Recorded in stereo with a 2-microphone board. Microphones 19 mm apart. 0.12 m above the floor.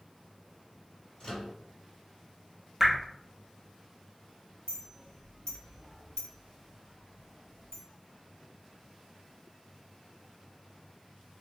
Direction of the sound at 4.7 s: 40° left (ahead or behind).